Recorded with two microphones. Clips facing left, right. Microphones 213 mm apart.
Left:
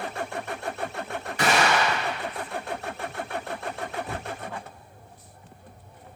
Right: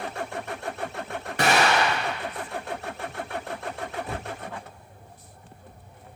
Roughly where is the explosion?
Right.